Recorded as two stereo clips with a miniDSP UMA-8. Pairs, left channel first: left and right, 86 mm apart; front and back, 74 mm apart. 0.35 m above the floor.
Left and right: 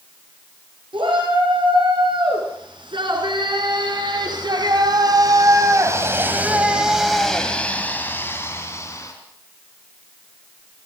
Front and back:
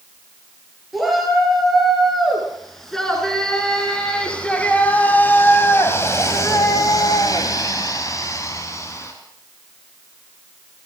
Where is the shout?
90° right, 8 m; by 9.2 s 40° left, 4 m.